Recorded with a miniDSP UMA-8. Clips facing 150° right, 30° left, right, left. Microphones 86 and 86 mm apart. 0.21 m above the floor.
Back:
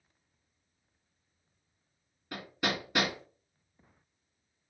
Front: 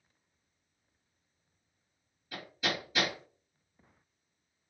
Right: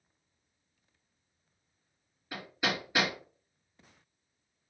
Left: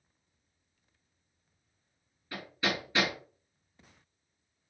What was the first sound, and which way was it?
Hammering, 165° right.